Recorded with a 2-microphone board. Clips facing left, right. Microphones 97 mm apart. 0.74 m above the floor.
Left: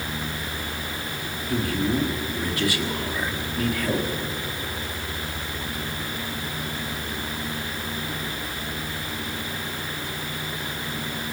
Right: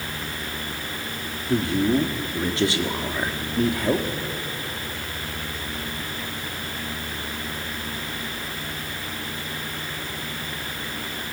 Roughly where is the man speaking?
Right.